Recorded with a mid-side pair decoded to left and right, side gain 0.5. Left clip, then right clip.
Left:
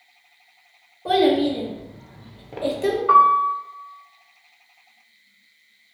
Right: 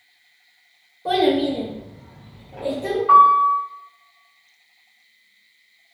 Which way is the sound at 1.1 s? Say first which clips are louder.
Left 1 dB; straight ahead.